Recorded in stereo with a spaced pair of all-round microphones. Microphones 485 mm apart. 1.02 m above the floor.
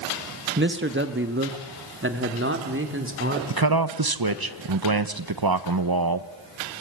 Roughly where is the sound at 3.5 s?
Right.